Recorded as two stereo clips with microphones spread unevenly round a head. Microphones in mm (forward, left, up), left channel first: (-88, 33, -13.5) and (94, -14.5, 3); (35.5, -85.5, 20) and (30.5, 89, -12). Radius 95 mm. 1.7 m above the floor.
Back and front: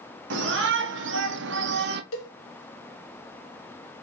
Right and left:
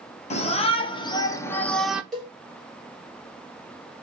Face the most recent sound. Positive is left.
turn(degrees=-170)